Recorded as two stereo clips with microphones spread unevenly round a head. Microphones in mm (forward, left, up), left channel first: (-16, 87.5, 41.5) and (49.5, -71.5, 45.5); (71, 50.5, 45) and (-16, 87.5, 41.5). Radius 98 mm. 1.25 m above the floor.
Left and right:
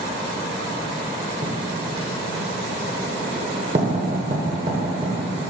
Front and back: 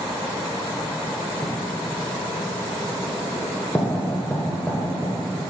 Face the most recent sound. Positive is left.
turn(degrees=-85)